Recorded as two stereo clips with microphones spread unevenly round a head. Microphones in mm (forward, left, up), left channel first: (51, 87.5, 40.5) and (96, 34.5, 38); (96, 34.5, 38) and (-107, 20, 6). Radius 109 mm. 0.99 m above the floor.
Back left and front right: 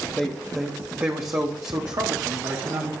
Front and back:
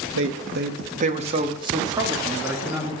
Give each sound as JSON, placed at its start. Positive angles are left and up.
{"t": 0.2, "sound": "a man speaking", "azimuth_deg": -150, "distance_m": 0.9}